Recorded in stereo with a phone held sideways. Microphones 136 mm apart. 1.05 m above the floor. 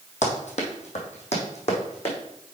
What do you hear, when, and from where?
0.2 s running footsteps: 60° left (ahead or behind), 1.9 m; by 2.2 s 50° left (ahead or behind), 3 m